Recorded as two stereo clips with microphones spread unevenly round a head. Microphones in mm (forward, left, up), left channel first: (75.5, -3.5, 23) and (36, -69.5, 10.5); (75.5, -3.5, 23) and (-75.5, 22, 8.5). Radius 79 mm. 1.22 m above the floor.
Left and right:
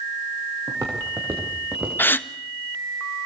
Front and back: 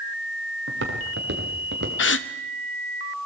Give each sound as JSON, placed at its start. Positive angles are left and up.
{"t": 0.7, "sound": "footsteps", "azimuth_deg": 165, "distance_m": 6.5}
{"t": 2.0, "sound": "a gasp", "azimuth_deg": -5, "distance_m": 1.0}